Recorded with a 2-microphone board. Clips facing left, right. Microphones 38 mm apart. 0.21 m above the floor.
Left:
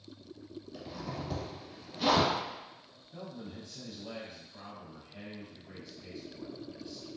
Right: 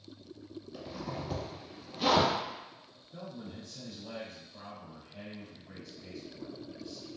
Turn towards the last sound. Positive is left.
turn(degrees=20)  # may be behind; listen again after turning